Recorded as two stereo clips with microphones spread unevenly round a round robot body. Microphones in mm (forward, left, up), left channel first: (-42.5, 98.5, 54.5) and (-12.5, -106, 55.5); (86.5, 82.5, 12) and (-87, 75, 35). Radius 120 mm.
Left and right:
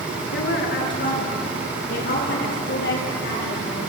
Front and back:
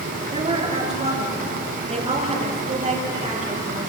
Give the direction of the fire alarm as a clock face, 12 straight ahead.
I don't hear a fire alarm.